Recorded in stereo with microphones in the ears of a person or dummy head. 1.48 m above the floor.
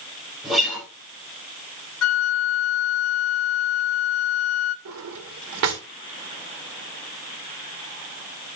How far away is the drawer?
About 1.9 m.